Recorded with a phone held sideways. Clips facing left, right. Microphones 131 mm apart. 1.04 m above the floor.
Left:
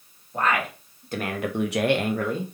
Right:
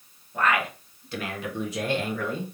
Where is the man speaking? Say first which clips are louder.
Even; 30° left (ahead or behind), 2 m; by 2.5 s 25° left (ahead or behind), 0.9 m.